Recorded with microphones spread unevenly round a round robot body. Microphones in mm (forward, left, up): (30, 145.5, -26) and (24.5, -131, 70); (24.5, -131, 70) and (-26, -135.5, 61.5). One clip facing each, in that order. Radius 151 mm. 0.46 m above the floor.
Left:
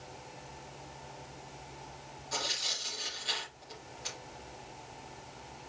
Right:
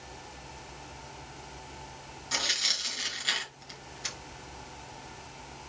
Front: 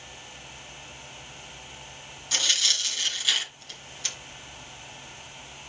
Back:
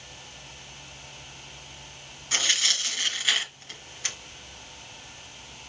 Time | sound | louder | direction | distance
2.3 | tearing paper | even, back 1 dB | 115° right | 2 m